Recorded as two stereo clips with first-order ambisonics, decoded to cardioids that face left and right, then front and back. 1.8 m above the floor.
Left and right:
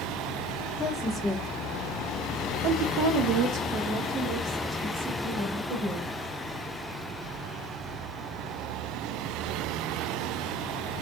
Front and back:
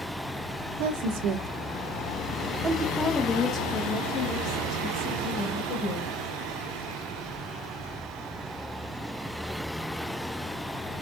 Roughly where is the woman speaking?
Behind.